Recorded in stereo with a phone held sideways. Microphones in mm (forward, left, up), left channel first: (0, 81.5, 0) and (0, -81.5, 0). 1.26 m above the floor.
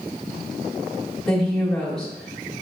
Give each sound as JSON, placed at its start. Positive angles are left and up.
{"t": 1.3, "sound": "a woman speaking", "side_deg": 5, "distance_m": 1.6}